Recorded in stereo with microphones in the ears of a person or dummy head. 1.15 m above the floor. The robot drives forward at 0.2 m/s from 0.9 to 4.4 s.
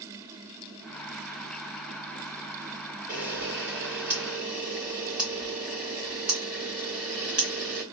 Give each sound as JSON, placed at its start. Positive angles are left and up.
{"t": 3.1, "sound": "a camera shutter", "side_deg": -5, "distance_m": 1.6}